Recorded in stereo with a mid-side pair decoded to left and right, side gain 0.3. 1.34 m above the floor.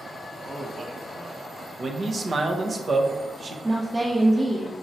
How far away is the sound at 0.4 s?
About 1.8 m.